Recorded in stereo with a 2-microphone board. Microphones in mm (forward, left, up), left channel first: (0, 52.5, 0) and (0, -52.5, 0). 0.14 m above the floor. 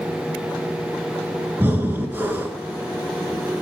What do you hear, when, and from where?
1.6 s breathing: 20° right (ahead or behind), 1.5 m